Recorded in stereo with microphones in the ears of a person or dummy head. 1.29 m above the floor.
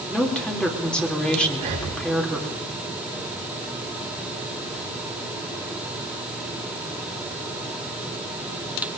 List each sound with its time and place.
0.1 s a woman speaking: 5° left (ahead or behind), 2.5 m
1.5 s breathing: 30° right (ahead or behind), 5.5 m